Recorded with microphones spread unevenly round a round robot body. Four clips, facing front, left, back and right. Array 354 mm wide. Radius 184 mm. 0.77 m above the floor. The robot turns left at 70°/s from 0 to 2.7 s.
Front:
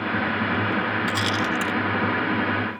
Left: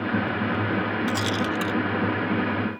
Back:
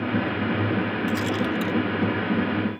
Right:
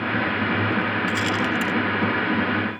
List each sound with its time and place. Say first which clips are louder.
1.1 s a rattle: right 2 dB, even; 65° left; by 1.8 s 15° left